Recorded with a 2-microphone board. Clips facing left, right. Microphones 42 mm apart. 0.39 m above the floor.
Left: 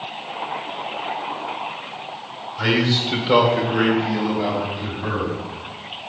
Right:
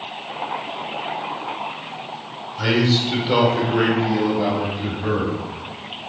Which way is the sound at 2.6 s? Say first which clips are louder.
Right 1 dB; 20° left (ahead or behind).